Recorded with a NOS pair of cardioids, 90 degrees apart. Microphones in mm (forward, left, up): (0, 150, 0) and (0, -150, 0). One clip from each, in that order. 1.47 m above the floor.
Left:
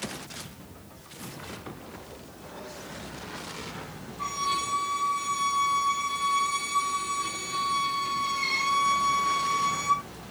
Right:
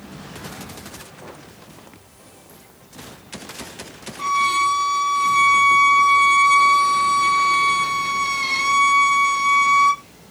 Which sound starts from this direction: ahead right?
A violin, at 4.2 s.